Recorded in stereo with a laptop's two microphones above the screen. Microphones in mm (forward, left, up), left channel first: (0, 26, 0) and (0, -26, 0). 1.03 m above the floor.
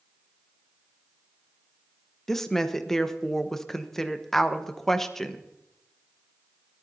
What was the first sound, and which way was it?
A woman speaking, 5° left (ahead or behind).